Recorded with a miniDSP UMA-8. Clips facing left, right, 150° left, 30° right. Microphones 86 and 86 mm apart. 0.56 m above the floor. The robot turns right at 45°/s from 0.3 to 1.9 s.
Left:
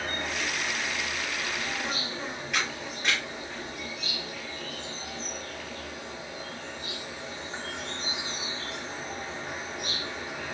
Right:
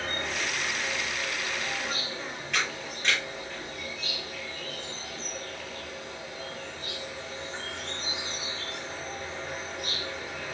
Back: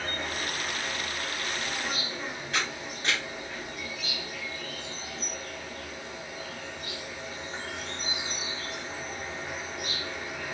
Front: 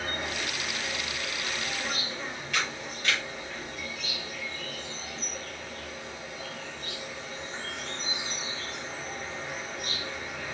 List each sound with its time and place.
0.0 s an insect: 15° left, 0.8 m; by 10.6 s 90° left, 0.8 m
2.5 s a camera shutter: 170° left, 1.5 m